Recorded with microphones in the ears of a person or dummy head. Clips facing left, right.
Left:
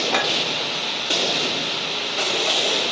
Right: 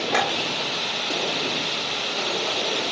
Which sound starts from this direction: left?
A clink, at 0.1 s.